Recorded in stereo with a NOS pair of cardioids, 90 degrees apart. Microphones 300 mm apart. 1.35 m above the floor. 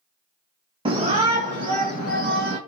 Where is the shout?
20° right, 1.0 m; by 2.6 s 35° right, 1.9 m.